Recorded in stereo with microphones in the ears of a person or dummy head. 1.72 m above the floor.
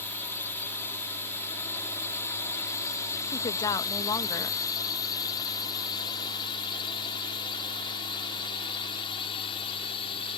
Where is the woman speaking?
20° left (ahead or behind).